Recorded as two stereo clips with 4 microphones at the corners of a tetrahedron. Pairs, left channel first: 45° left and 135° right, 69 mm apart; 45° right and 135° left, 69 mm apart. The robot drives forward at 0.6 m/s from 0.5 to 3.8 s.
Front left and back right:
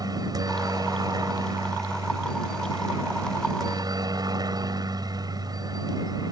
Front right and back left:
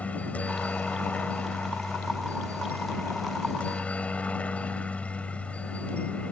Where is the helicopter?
115° right.